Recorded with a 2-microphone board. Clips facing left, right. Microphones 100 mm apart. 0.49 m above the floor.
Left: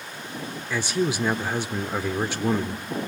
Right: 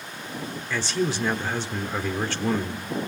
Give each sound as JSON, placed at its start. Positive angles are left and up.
{"t": 0.7, "sound": "a man speaking", "side_deg": 10, "distance_m": 1.0}